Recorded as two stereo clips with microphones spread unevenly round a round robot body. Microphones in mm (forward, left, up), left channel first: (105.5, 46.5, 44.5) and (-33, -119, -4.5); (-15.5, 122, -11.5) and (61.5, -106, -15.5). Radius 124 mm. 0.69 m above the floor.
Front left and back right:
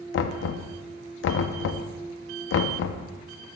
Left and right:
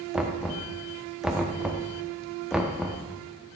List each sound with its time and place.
0.1 s knocking: 15° left, 0.5 m